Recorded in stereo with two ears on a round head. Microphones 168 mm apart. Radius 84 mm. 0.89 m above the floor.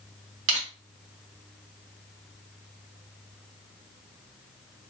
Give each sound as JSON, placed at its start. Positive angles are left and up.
{"t": 0.5, "sound": "crushing", "side_deg": -70, "distance_m": 1.3}